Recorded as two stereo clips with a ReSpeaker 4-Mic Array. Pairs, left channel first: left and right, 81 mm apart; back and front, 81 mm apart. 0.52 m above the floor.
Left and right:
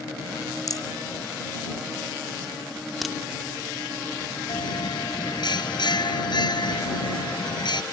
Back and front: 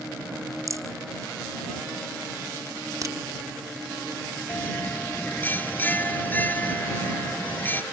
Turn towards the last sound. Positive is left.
turn(degrees=115)